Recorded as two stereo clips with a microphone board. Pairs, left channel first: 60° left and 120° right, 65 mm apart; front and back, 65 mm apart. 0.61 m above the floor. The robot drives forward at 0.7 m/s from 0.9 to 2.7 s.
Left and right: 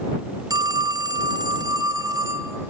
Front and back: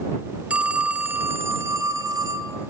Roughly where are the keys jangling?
No keys jangling in this recording.